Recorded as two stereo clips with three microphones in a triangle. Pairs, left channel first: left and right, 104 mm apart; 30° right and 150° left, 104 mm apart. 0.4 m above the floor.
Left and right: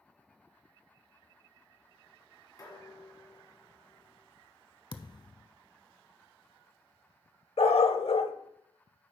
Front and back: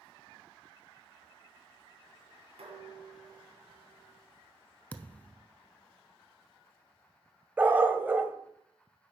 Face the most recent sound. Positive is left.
turn(degrees=80)